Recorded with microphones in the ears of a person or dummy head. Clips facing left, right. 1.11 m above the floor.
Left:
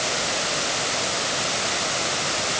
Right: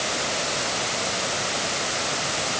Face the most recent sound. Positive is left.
No sound to turn to.